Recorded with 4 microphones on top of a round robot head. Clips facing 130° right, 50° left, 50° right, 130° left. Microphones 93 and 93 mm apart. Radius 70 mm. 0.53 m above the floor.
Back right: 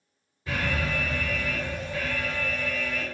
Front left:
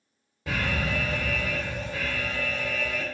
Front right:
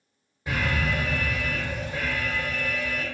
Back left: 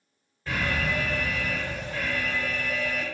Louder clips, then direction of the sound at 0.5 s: Even, front right 1 dB; 30° left.